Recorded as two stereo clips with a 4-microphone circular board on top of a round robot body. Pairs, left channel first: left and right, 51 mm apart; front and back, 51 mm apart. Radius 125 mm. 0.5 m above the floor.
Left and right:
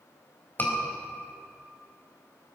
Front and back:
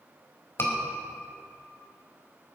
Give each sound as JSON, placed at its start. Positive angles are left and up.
{"t": 0.6, "sound": "a scream", "azimuth_deg": 40, "distance_m": 4.0}